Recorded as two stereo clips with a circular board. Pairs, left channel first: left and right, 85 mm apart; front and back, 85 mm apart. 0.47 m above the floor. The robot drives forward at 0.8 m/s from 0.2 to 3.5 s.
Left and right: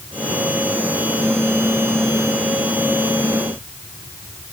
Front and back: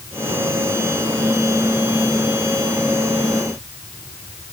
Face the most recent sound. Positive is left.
No sound to turn to.